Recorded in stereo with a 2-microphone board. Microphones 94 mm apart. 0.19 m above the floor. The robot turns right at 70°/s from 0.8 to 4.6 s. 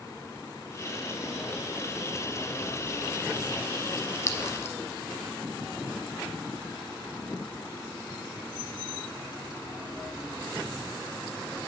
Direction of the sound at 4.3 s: 30° left (ahead or behind).